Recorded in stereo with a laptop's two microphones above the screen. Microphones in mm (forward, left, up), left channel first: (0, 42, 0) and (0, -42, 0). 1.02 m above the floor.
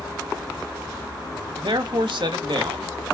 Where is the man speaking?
70° right (ahead or behind), 1.7 m.